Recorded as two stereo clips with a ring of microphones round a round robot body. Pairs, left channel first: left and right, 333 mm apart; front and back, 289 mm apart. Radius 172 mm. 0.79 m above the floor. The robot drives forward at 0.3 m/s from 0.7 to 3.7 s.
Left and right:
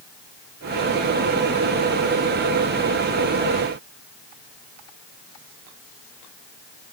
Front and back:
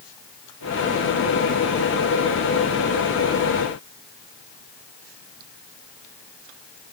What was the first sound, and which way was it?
Only background noise.